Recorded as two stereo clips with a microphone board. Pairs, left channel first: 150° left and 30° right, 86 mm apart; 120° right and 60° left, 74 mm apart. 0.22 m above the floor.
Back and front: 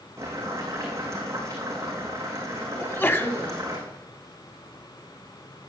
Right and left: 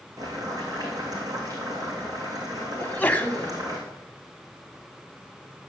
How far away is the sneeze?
About 1.2 m.